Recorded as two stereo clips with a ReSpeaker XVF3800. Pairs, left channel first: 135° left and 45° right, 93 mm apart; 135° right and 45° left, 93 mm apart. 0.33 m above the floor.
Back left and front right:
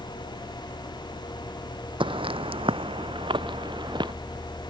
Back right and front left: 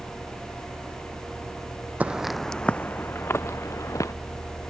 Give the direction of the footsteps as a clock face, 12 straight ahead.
1 o'clock.